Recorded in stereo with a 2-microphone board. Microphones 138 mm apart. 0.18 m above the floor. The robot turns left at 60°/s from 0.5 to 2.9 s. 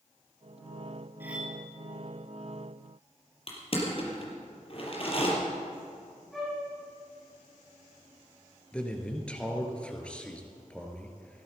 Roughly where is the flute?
Centre.